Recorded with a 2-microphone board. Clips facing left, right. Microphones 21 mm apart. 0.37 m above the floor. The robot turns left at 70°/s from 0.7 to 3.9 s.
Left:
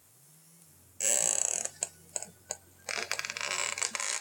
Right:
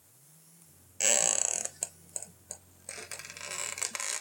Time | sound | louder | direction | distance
1.0 | a squeak | right 3 dB | 145° right | 0.5 m